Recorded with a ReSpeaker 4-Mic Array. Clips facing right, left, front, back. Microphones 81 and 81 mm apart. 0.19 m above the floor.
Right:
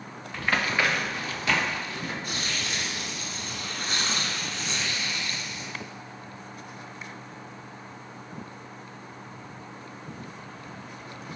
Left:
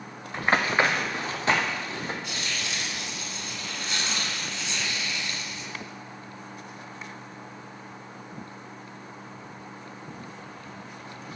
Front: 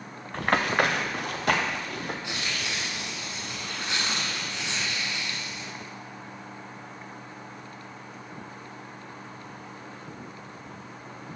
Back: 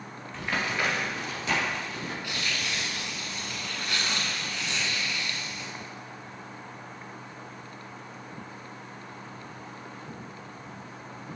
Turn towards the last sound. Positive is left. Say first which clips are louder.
# right 1 dB, even
turn(degrees=-65)